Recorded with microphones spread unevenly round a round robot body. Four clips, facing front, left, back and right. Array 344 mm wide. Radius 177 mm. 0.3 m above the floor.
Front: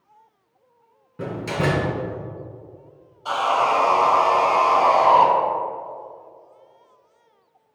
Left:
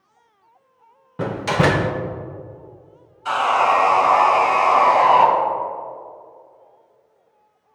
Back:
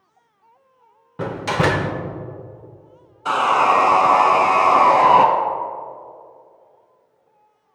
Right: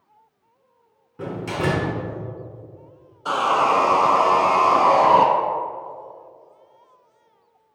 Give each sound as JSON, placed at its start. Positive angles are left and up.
{"t": 1.2, "sound": "a door slam", "azimuth_deg": 115, "distance_m": 0.7}
{"t": 3.2, "sound": "sawing", "azimuth_deg": -140, "distance_m": 0.5}